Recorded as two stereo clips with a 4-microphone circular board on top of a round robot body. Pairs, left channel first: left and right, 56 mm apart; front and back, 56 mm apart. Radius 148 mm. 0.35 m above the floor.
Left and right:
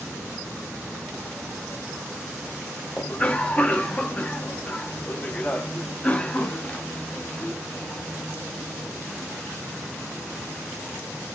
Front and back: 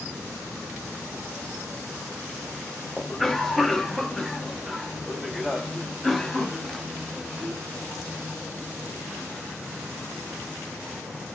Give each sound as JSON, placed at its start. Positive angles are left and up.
{"t": 3.0, "sound": "a cough", "azimuth_deg": 80, "distance_m": 0.8}